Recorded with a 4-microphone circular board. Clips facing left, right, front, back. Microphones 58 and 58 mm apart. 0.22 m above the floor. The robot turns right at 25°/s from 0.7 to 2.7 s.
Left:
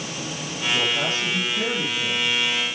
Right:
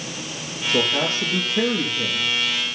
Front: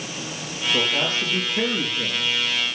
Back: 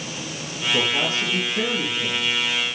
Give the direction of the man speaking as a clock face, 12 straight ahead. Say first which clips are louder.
Right 2 dB, back 1 dB; 4 o'clock.